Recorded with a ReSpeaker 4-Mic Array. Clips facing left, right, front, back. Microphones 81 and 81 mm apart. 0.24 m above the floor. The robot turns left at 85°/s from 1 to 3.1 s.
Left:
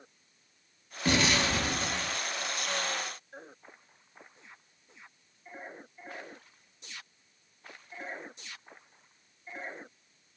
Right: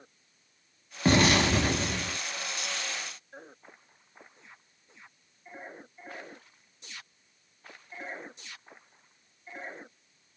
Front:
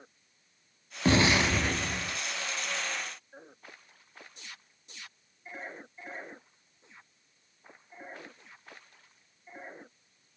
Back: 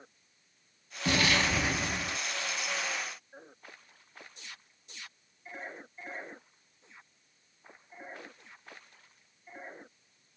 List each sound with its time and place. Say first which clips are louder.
1.1 s an explosion: right 5 dB, front 4 dB; 45° right, 0.5 m; by 2.2 s 140° right, 0.5 m